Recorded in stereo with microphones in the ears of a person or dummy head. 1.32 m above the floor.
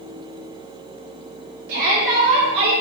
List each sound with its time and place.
1.7 s a shout: 60° right (ahead or behind), 3 m; by 2.7 s 80° right, 1.7 m